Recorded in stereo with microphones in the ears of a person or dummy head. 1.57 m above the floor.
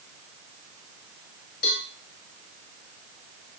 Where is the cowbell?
50° left (ahead or behind), 1.8 m.